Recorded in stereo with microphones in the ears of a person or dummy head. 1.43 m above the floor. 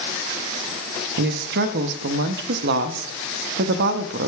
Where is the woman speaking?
65° right (ahead or behind), 0.8 m.